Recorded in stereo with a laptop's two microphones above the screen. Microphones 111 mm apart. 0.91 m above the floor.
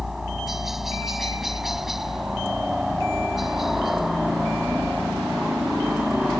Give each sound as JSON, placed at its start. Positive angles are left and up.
{"t": 0.0, "sound": "a helicopter", "side_deg": -5}